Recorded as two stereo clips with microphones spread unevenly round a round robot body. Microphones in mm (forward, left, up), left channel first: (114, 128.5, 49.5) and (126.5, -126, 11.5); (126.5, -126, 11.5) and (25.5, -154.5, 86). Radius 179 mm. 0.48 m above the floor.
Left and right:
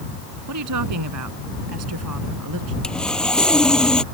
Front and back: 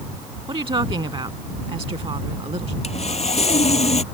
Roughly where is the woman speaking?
Behind right.